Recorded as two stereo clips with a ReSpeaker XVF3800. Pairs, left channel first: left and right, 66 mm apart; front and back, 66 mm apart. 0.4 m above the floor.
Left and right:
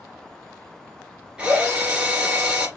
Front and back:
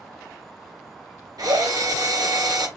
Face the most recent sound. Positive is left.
turn(degrees=-165)